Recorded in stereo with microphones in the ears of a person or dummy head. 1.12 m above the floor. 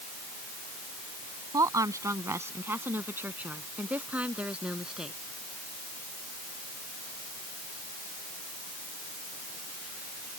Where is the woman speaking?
25° right (ahead or behind); by 5.2 s 5° right (ahead or behind).